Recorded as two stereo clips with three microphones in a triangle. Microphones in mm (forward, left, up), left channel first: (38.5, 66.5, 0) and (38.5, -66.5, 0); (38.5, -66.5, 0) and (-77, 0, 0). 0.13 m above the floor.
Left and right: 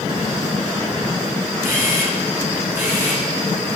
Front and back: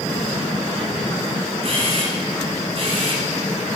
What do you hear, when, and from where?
1.6 s a camera shutter: 165° right, 2.5 m